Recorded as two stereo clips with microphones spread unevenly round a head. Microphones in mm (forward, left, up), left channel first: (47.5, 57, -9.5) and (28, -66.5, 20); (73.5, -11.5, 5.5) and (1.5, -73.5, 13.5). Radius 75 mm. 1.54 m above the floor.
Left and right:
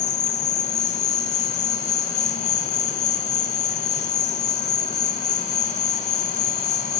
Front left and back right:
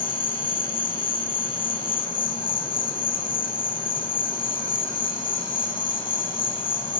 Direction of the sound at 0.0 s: 60° left.